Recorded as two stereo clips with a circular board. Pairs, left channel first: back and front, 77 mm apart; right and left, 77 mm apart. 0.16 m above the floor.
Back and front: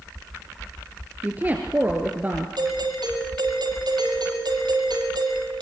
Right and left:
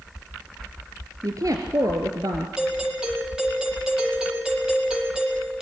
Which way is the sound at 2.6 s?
10° left.